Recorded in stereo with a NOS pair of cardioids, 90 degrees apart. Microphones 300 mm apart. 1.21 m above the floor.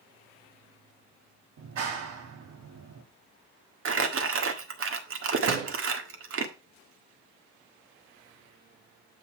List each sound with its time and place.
1.6 s a clap: 65° right, 2.0 m
3.9 s crumpling: 45° right, 1.7 m
5.5 s a door slam: 55° right, 1.7 m